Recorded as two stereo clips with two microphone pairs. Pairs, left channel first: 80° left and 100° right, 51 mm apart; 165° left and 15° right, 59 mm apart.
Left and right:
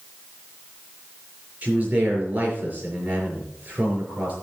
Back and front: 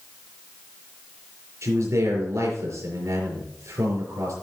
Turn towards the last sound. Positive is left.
turn(degrees=-35)